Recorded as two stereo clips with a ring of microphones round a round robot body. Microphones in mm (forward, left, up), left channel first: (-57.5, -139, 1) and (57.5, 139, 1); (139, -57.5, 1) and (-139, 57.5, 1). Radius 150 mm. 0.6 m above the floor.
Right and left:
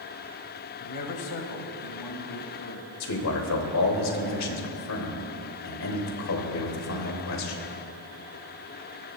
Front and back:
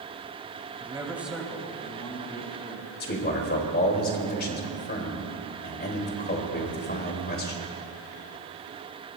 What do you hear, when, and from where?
0.8 s a man speaking: 130° right, 2.5 m; by 2.9 s 85° right, 4.5 m
3.0 s a man speaking: 80° right, 3 m